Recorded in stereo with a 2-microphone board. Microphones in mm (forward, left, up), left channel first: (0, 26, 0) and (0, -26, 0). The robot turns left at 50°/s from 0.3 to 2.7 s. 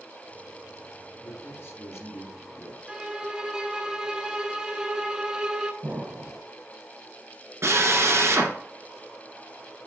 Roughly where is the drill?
Right.